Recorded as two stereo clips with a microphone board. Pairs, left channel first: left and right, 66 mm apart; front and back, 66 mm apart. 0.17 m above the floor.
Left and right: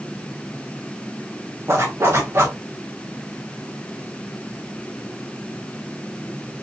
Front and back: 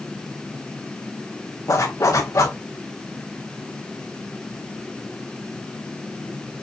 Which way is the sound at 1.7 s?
40° right.